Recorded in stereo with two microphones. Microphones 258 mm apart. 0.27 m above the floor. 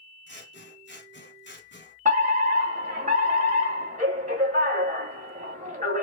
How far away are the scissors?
About 1.7 m.